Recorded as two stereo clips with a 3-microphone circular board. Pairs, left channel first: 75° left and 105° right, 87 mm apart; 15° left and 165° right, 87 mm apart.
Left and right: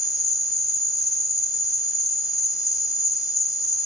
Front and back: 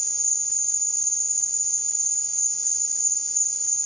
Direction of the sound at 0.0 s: 100° left.